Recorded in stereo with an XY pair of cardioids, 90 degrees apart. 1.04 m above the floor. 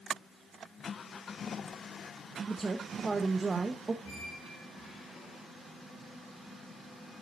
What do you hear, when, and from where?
2.5 s a woman speaking: 30° right, 0.8 m
4.0 s a squeak: 70° left, 5.5 m